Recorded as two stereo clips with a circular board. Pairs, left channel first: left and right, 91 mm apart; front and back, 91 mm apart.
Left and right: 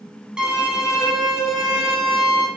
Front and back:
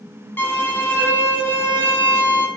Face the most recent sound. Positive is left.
turn(degrees=-25)